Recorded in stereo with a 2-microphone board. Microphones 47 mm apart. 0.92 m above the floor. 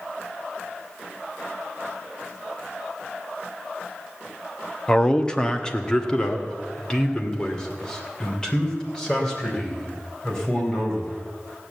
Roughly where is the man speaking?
Centre.